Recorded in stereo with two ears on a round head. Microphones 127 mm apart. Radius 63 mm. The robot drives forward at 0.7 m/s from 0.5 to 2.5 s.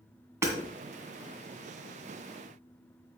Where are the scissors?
No scissors in this recording.